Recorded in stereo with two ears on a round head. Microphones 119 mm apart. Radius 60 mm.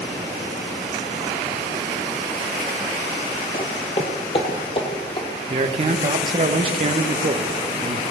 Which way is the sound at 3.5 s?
40° left (ahead or behind).